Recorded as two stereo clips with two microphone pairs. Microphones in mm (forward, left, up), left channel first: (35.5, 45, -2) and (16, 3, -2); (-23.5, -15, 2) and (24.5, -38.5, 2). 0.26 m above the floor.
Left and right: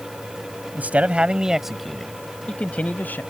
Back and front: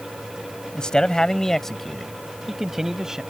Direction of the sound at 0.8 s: 140° right.